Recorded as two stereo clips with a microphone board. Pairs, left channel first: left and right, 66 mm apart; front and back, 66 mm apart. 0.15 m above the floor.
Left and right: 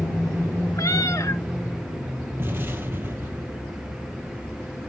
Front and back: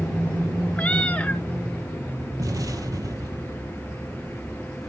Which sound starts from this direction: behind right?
An explosion, at 2.4 s.